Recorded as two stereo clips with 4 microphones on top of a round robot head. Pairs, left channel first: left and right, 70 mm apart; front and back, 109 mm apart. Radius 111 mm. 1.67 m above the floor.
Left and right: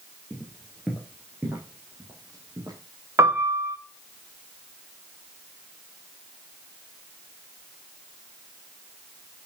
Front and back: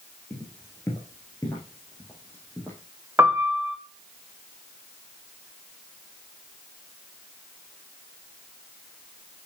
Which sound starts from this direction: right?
A piano, at 3.2 s.